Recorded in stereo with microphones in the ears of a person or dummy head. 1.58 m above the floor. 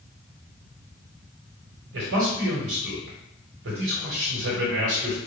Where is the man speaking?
70° right (ahead or behind), 1.4 m.